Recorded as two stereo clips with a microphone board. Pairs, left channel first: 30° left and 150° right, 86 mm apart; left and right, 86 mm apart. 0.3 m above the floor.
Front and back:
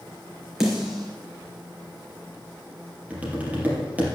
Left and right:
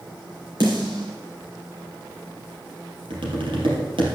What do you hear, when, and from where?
0.6 s a snare drum: 65° right, 4 m
3.1 s tapping: 80° right, 3.5 m